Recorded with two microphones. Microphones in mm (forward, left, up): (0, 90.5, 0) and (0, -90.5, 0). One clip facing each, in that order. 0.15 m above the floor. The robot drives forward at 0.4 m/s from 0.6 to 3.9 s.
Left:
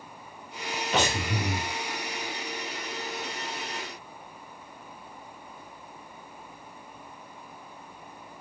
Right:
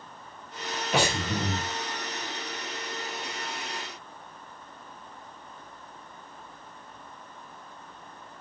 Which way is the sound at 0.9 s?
10° right (ahead or behind).